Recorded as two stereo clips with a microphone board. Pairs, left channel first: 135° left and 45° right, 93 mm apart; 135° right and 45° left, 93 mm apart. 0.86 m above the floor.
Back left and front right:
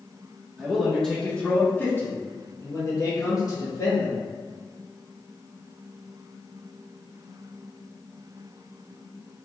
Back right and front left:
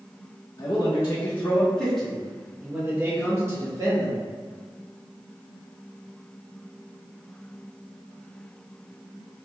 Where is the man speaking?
125° right, 1.1 m; by 4.2 s 90° left, 1.9 m.